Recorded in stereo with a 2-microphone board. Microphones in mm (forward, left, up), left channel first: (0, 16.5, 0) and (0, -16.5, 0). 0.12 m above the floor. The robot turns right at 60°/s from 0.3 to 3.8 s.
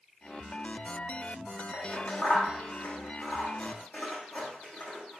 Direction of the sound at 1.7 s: 10° left (ahead or behind).